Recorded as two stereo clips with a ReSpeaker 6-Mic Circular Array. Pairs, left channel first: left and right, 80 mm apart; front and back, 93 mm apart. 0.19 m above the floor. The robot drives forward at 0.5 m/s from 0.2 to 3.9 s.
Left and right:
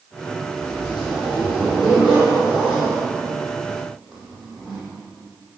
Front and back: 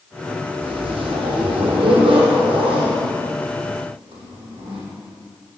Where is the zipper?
175° left, 5 m; by 4.8 s straight behind, 6.5 m.